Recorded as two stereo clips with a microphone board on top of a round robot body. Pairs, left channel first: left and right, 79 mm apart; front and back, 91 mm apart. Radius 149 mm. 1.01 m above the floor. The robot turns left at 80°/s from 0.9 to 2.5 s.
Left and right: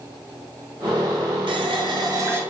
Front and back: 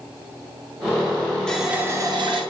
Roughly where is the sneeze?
I don't hear a sneeze.